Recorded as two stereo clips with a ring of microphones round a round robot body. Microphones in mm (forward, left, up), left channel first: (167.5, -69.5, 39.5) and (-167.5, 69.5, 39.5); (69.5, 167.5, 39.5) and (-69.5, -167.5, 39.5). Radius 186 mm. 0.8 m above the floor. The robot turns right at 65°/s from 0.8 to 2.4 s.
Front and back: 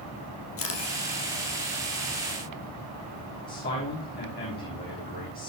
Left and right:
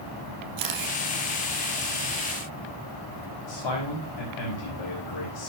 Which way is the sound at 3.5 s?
45° left.